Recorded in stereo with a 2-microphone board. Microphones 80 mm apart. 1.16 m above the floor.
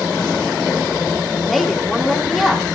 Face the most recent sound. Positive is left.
turn(degrees=0)  # may be behind; listen again after turning